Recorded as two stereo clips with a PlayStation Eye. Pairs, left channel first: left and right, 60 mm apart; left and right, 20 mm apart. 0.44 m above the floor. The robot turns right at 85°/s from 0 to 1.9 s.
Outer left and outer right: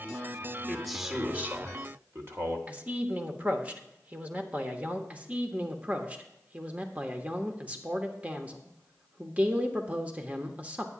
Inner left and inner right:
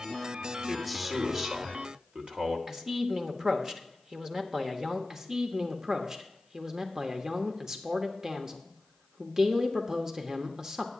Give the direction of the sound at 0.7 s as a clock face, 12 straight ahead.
7 o'clock.